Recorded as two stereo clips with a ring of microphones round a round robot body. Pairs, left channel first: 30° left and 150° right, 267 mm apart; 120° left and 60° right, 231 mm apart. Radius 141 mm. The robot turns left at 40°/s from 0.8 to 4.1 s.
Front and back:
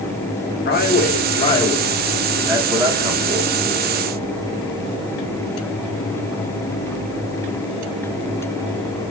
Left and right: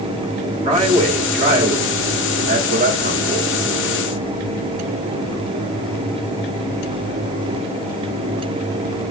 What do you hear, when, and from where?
0.7 s a man speaking: 5° right, 1.4 m; by 3.5 s 115° right, 1.4 m